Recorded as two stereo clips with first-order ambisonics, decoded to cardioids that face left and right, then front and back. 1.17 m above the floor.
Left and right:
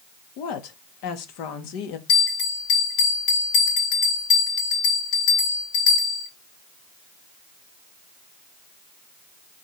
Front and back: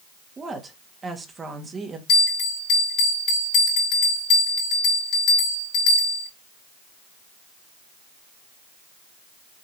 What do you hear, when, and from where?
0.4 s a woman speaking: 105° left, 1.9 m
2.1 s a bell: 50° left, 5 m